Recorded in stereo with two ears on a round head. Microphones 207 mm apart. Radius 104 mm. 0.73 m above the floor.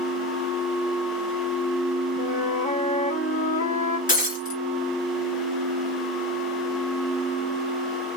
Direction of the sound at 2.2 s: 30° left (ahead or behind).